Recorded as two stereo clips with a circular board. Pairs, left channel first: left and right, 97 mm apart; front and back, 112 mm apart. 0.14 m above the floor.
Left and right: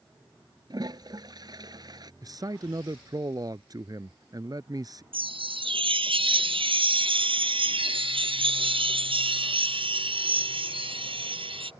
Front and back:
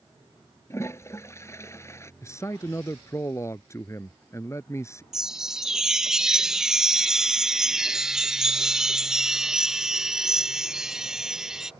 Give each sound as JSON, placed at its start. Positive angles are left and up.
{"t": 0.7, "sound": "a toilet flushing", "azimuth_deg": -60}
{"t": 2.2, "sound": "a man speaking", "azimuth_deg": -55}
{"t": 5.1, "sound": "a chime", "azimuth_deg": -95}